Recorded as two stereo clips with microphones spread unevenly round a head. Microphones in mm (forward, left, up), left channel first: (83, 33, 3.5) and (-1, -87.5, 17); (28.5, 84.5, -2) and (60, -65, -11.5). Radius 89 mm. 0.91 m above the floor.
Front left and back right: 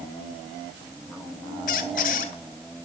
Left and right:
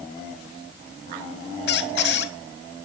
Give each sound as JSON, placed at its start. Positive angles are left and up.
{"t": 1.7, "sound": "a squeak", "azimuth_deg": 105, "distance_m": 1.7}